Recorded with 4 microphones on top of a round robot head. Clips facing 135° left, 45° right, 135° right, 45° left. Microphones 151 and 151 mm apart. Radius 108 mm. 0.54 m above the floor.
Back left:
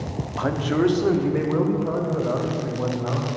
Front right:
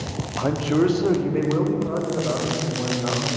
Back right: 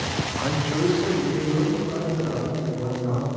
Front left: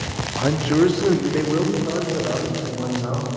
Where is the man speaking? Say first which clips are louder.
Front right 1 dB, front left 8 dB; 25° left, 0.8 m; by 3.3 s 50° left, 3 m.